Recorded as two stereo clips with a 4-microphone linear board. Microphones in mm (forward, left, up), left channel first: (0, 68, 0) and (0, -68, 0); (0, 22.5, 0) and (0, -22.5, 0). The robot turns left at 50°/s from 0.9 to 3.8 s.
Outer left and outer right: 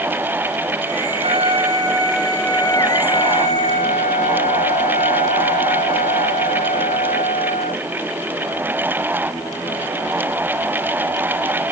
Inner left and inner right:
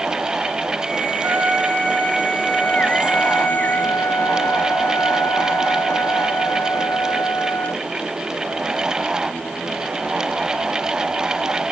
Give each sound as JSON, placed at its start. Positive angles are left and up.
{"t": 1.2, "sound": "a trumpet", "azimuth_deg": -125}